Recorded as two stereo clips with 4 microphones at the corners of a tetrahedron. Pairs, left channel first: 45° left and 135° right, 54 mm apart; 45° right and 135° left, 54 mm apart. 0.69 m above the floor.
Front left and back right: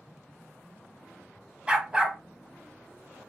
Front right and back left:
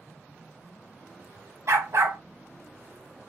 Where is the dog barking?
155° left, 1.2 m.